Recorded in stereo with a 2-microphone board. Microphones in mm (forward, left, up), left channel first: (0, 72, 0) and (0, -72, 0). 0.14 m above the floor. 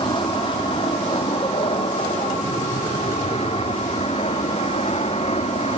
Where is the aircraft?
35° left (ahead or behind); by 5.8 s 45° left (ahead or behind).